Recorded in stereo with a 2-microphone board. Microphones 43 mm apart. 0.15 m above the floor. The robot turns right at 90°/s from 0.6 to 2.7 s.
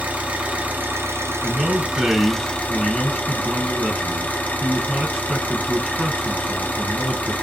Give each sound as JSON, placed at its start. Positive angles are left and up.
{"t": 0.0, "sound": "an engine running", "azimuth_deg": -145, "distance_m": 0.9}
{"t": 1.4, "sound": "a man speaking", "azimuth_deg": -140, "distance_m": 1.2}